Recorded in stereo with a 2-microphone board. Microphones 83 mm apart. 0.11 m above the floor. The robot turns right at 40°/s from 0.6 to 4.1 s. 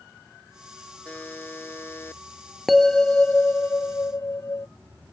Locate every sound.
1.1 s a buzzer: 20° left (ahead or behind); by 2.2 s 30° left (ahead or behind)
2.7 s a bell: 5° right; by 4.7 s 55° left